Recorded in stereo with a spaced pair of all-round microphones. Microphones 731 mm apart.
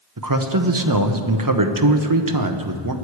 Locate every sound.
0.2 s a man speaking: 30° right (ahead or behind), 1.0 m